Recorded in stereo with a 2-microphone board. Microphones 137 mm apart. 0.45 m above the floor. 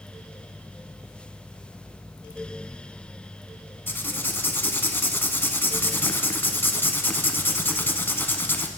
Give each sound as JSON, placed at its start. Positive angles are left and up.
{"t": 3.9, "sound": "writing", "side_deg": 15, "distance_m": 0.9}